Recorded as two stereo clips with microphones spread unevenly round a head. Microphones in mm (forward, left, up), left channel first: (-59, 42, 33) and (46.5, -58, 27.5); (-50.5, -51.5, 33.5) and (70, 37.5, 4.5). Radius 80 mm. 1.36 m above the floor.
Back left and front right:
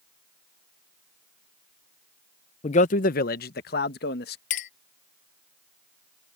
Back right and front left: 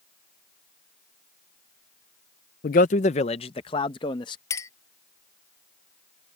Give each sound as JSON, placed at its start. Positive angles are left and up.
{"t": 2.6, "sound": "a man speaking", "azimuth_deg": -175}
{"t": 4.5, "sound": "a clink", "azimuth_deg": 160}